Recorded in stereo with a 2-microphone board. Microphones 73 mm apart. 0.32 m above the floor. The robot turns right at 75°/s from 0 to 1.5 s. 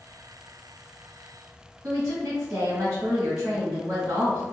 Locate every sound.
1.8 s a woman speaking: 45° right (ahead or behind), 1.7 m